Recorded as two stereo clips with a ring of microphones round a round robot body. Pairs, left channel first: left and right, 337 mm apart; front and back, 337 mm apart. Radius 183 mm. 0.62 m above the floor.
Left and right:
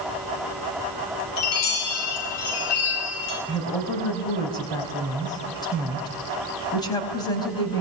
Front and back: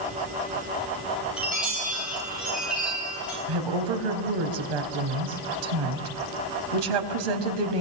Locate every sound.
1.4 s a chime: 95° left, 9.5 m
3.5 s a woman speaking: 170° left, 4.5 m